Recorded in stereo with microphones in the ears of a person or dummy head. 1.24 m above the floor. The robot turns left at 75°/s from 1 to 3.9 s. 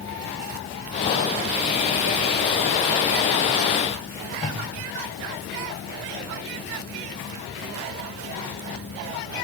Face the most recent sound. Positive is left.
turn(degrees=35)  # may be behind; listen again after turning